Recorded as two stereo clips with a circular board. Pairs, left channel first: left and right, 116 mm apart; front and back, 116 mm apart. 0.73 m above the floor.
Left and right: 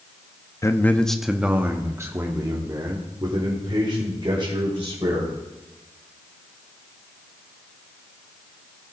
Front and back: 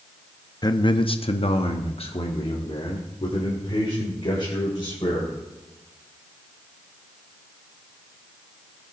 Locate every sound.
0.6 s a man speaking: 40° left, 0.6 m; by 5.3 s 45° right, 3 m